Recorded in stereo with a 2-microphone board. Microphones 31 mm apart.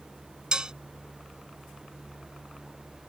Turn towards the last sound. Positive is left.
turn(degrees=-25)  # may be behind; listen again after turning